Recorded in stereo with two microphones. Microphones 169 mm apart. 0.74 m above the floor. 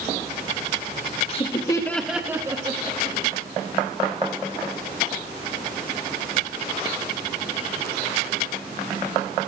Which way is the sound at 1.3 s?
35° left (ahead or behind).